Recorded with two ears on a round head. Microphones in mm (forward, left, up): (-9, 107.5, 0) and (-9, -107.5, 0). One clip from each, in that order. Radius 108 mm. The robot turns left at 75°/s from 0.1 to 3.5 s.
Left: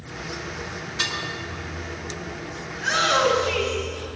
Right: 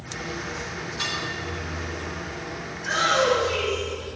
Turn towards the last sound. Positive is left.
turn(degrees=30)